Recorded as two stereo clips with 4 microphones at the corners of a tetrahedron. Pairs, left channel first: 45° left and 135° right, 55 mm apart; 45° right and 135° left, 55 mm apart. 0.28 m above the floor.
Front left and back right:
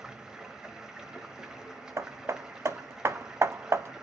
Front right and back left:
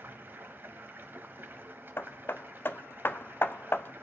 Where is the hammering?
95° right, 0.5 m.